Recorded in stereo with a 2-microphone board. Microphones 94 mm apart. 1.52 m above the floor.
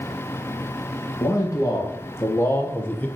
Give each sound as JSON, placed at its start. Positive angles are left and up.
{"t": 1.2, "sound": "a man speaking", "side_deg": 35, "distance_m": 2.5}